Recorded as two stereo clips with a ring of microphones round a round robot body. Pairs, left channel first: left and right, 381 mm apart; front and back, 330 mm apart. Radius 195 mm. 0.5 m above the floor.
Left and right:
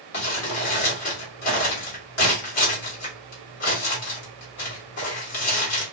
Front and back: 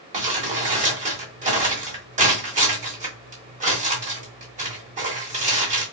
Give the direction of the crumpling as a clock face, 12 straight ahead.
8 o'clock.